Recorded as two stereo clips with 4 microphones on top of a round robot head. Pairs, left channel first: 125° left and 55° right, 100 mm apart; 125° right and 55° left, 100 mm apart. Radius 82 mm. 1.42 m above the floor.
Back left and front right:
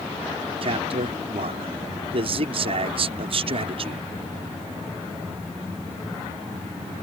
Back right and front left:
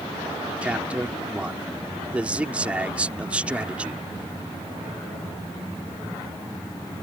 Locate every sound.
0.6 s a man speaking: 25° right